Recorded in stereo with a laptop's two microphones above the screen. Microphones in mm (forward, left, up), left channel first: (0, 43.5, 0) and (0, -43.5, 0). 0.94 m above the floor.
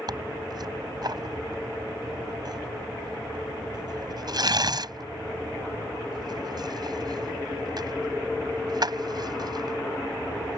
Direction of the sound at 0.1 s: 50° right (ahead or behind).